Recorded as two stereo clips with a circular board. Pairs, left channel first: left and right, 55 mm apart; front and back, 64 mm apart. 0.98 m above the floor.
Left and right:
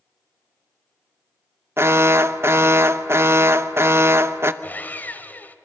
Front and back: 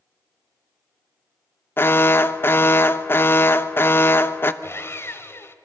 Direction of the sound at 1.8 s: 50° right.